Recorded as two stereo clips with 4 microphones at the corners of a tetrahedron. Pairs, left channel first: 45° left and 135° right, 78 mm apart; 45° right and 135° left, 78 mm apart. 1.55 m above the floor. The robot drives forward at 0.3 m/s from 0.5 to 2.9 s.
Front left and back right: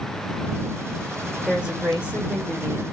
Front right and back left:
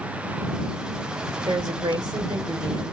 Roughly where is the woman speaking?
Behind left.